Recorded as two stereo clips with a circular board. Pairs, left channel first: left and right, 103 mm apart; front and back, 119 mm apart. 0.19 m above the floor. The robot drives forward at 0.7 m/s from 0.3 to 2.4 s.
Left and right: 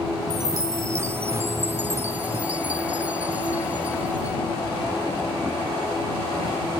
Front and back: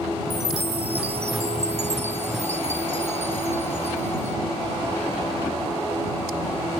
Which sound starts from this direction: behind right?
A chime, at 0.3 s.